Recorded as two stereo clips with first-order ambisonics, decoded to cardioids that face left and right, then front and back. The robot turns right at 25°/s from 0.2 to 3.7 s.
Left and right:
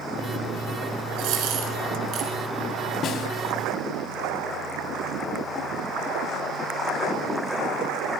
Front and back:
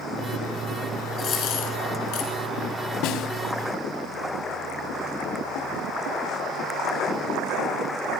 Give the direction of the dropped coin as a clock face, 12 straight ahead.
2 o'clock.